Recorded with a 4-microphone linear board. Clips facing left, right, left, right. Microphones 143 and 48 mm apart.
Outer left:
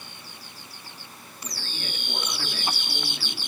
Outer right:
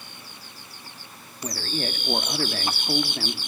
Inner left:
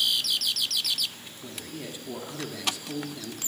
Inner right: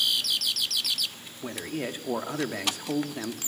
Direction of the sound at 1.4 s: 50° right (ahead or behind).